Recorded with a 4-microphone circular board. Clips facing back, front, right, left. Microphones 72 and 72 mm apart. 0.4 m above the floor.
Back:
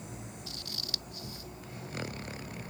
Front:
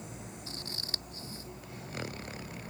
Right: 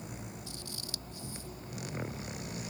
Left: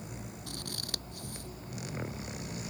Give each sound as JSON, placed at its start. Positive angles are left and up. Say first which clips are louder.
{"t": 0.5, "sound": "scissors", "louder": "front 1 dB, left 3 dB", "azimuth_deg": 60}